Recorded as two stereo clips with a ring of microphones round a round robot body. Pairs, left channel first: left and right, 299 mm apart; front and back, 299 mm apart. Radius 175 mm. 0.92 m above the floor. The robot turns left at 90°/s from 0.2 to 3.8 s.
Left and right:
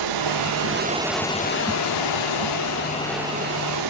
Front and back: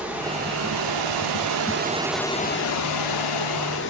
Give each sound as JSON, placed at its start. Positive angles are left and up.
{"t": 0.0, "sound": "running water", "azimuth_deg": -95, "distance_m": 1.1}